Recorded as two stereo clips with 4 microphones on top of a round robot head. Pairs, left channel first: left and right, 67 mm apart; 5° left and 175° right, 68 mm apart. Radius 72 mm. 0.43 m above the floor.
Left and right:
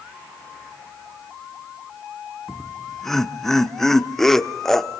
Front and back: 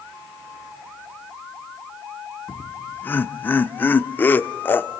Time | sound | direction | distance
2.5 | laughter | 10° left | 1.0 m